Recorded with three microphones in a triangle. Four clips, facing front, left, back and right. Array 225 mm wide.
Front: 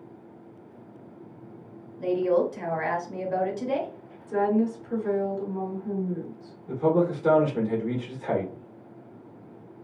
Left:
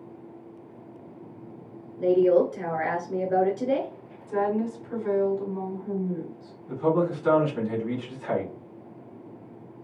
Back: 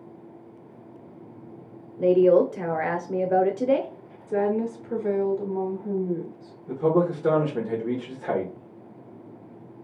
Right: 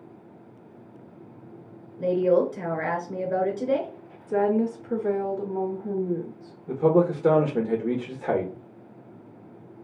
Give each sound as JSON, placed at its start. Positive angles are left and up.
{"t": 2.0, "sound": "a woman speaking", "azimuth_deg": 180, "distance_m": 1.1}
{"t": 4.3, "sound": "a woman speaking", "azimuth_deg": -125, "distance_m": 1.0}
{"t": 6.7, "sound": "a man speaking", "azimuth_deg": -110, "distance_m": 1.4}